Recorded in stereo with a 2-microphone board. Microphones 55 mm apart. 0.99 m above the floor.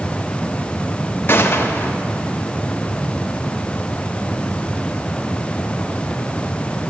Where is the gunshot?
45° left (ahead or behind), 1.1 m.